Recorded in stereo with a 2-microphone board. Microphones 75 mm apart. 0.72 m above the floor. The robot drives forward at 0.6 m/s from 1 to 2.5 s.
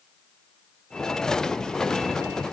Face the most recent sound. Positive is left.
No sound to turn to.